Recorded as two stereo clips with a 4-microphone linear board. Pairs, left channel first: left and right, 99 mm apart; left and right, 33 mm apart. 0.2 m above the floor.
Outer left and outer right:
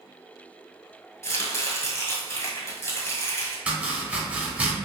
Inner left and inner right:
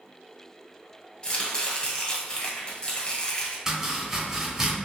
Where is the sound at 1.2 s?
30° left (ahead or behind), 1.0 m.